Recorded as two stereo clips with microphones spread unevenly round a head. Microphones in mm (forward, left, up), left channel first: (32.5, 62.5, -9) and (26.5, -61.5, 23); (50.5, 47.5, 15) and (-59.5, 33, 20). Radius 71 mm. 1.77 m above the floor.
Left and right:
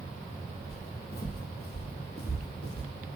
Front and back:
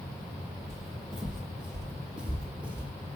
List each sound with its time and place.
0.7 s footsteps: 100° left, 3 m; by 2.9 s 110° left, 4 m